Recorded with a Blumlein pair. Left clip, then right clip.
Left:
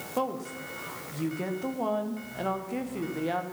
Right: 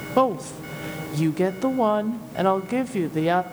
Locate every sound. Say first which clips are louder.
0.2 s a woman speaking: right 10 dB; 30° right, 0.5 m